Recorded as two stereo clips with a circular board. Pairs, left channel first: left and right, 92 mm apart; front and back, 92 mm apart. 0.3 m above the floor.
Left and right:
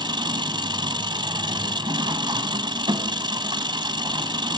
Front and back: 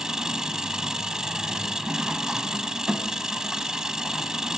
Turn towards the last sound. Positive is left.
turn(degrees=-100)